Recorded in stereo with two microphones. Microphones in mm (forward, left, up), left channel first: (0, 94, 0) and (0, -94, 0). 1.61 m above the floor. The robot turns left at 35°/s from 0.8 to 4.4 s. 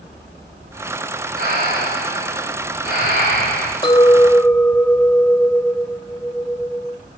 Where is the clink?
25° left (ahead or behind), 1.0 m; by 7.0 s 5° left (ahead or behind), 1.0 m.